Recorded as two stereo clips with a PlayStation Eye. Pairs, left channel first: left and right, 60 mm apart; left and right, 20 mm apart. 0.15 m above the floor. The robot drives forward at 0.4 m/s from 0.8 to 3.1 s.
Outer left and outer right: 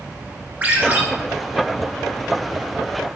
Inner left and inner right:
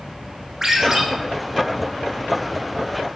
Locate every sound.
0.6 s a ringtone: 25° right (ahead or behind), 1.0 m